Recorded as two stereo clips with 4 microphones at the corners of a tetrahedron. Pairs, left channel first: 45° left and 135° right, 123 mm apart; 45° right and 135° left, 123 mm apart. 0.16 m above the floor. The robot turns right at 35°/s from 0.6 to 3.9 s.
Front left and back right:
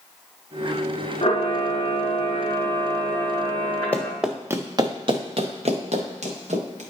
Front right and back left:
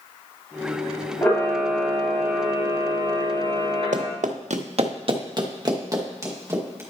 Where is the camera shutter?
35° left, 2 m; by 4.1 s 130° left, 2 m.